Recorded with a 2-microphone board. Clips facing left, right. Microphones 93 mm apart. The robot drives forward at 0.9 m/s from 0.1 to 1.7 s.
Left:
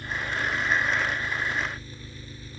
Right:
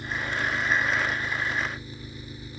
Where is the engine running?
20° right (ahead or behind); by 2.6 s 15° right (ahead or behind).